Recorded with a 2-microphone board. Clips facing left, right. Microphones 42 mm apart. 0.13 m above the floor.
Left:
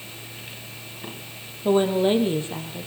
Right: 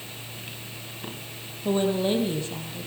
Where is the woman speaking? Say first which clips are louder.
Left 4 dB; 25° left (ahead or behind), 3.5 m.